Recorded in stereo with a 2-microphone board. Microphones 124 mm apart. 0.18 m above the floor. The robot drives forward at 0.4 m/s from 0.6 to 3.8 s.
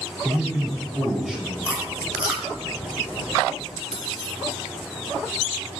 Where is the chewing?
10° right (ahead or behind), 2.5 m.